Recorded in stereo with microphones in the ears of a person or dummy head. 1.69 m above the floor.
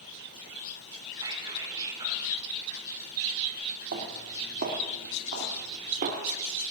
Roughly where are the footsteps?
Right.